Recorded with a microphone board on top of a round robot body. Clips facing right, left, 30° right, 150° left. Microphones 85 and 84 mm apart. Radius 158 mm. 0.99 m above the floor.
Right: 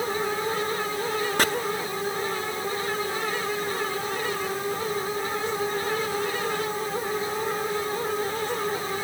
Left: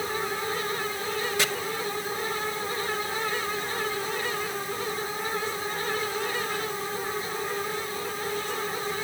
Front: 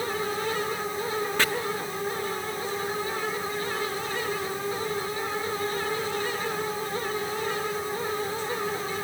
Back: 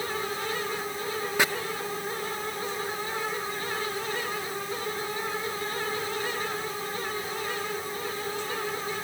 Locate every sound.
1.4 s chopping: 130° right, 0.6 m